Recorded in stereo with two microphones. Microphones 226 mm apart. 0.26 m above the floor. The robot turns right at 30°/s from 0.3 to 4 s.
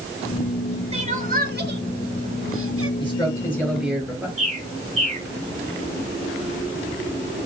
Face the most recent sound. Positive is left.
turn(degrees=-30)  # may be behind; listen again after turning